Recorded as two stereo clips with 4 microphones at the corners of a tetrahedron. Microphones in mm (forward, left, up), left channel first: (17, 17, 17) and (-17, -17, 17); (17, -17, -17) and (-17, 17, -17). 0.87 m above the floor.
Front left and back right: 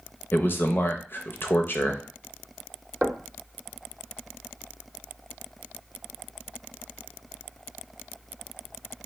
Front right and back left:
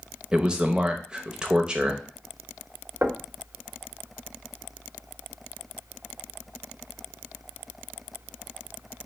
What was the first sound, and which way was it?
A man speaking, 70° left.